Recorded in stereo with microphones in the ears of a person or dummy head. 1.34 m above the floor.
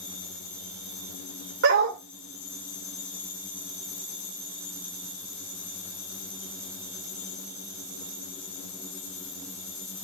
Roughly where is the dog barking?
Right.